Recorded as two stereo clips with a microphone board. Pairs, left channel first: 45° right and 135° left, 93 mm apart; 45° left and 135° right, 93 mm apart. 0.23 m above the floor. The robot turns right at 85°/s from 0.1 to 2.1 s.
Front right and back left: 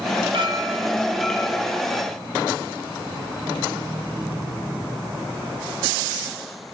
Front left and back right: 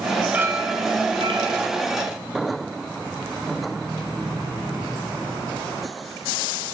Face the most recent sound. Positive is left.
turn(degrees=-55)